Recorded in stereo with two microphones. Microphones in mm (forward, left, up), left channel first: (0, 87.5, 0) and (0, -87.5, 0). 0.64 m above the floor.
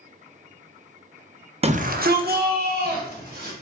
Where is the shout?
35° right (ahead or behind), 0.6 m; by 3.5 s 60° right (ahead or behind), 3 m.